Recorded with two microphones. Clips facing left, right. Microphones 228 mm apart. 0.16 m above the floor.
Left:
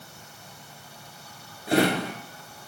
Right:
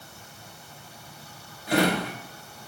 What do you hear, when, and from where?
1.7 s a drawer: 25° left (ahead or behind), 1.7 m